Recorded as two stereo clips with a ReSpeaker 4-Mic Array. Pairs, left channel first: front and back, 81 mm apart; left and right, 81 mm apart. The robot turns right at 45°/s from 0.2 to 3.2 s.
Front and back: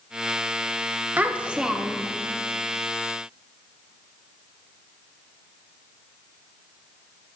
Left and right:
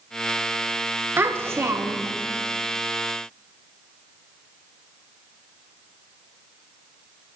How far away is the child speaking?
About 0.8 m.